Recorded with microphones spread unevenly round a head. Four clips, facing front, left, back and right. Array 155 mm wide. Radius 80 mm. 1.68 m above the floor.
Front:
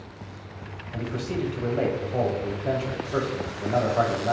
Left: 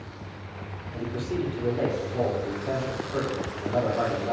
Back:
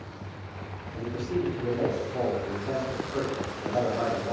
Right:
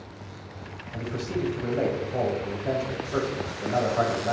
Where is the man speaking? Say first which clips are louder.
Left 1 dB, even; 30° right, 0.8 m.